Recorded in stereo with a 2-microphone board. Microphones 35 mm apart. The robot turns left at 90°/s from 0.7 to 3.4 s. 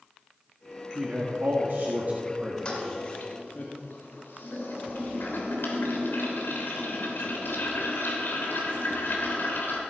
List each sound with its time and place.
0.9 s a man speaking: 25° right (ahead or behind), 1.4 m; by 3.6 s 60° left (ahead or behind), 1.4 m
2.6 s a toilet flushing: 150° left, 2.5 m; by 9.8 s 80° left, 2.5 m